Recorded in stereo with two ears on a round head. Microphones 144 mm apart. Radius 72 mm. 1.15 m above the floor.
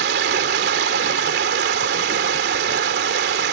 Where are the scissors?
I don't hear scissors.